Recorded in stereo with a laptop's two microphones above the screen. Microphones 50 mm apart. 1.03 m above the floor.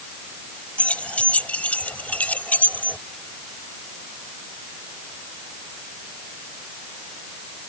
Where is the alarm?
No alarm in this recording.